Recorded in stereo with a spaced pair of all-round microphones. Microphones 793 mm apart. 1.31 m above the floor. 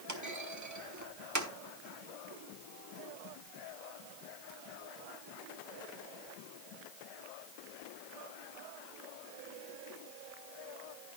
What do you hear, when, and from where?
0.1 s a clunk: 20° right (ahead or behind), 1.3 m